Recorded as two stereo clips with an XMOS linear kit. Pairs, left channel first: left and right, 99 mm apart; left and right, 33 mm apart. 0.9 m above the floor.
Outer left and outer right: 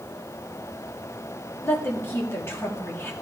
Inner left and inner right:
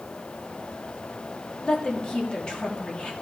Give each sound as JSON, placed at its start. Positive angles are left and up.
{"t": 1.6, "sound": "a woman speaking", "side_deg": 25, "distance_m": 1.7}